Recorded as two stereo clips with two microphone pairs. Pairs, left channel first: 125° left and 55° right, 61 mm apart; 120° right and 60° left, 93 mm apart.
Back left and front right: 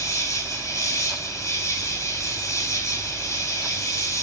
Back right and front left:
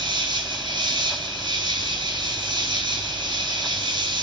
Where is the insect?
90° left, 1.6 m.